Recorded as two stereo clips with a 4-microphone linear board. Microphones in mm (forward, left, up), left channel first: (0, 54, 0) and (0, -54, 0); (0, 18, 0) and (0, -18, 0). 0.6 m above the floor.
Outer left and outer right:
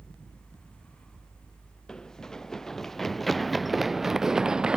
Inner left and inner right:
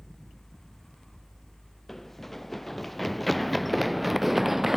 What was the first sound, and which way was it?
Running footsteps, 5° left (ahead or behind).